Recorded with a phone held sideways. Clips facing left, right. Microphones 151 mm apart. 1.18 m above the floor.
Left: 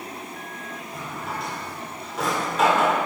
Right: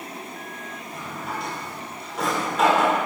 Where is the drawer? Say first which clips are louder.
Even; centre (ahead or behind), 1.8 m.